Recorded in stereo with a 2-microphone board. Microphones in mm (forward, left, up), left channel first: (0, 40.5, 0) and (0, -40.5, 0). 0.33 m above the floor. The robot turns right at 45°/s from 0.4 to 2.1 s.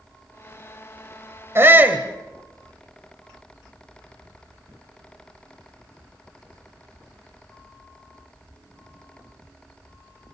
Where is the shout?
35° right (ahead or behind), 2.0 m; by 2.1 s 20° right (ahead or behind), 2.0 m.